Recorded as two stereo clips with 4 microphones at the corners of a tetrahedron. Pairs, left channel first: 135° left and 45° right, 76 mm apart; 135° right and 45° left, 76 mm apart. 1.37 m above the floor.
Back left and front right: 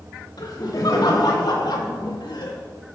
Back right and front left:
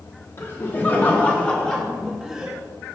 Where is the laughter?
165° left, 3 m; by 2.6 s 125° left, 2 m.